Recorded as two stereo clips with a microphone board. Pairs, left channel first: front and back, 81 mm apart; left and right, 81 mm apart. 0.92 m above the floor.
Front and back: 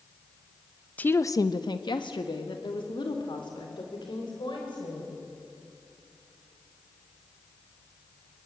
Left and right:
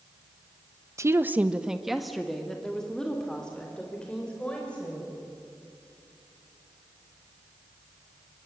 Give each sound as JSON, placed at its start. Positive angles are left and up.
{"t": 1.0, "sound": "a woman speaking", "azimuth_deg": -65, "distance_m": 0.7}